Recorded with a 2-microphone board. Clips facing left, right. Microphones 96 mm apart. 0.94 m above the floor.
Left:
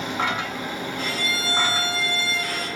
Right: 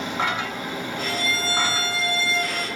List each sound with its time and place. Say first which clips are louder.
1.0 s a violin: right 3 dB; 35° right (ahead or behind), 4 m